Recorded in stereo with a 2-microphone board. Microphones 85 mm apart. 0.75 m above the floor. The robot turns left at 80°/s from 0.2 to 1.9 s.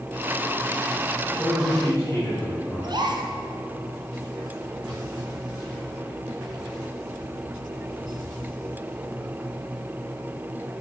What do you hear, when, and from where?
1.4 s a man speaking: 165° right, 3.5 m; by 2.9 s 150° left, 3.5 m
2.8 s a gasp: 60° right (ahead or behind), 1.9 m